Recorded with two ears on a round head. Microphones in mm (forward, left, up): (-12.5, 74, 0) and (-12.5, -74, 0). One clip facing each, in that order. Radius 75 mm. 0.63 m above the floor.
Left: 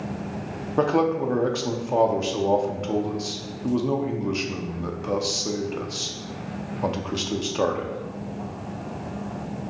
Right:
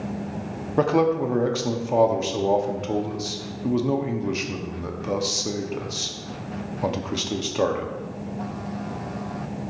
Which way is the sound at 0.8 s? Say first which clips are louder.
Right 1 dB; 5° right (ahead or behind).